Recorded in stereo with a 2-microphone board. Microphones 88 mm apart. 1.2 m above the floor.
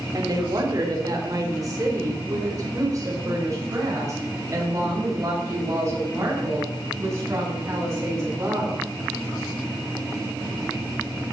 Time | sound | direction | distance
0.1 | a woman speaking | 45° right (ahead or behind) | 2.5 m